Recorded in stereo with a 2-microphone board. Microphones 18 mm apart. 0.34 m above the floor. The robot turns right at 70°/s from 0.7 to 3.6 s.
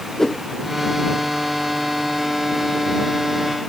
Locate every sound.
0.2 s a whoosh: 20° left (ahead or behind)